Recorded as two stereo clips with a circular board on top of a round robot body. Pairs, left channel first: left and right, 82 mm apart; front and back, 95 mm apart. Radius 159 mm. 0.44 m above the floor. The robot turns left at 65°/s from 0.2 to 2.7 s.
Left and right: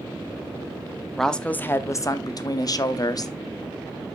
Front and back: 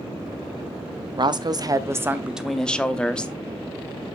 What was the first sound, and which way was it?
A woman speaking, 175° left.